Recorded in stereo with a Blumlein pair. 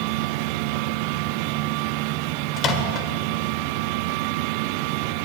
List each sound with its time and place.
2.6 s a microwave: 25° left, 1.5 m